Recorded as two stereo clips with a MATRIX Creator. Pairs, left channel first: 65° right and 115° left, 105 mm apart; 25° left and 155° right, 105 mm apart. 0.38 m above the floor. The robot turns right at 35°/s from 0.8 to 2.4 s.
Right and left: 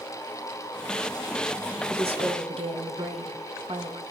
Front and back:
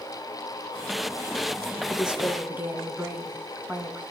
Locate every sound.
1.9 s a woman speaking: 115° left, 4 m; by 4.0 s 135° left, 4 m